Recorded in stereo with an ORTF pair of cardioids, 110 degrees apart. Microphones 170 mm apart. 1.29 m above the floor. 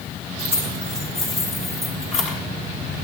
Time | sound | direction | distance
0.4 | keys jangling | 35° left | 7 m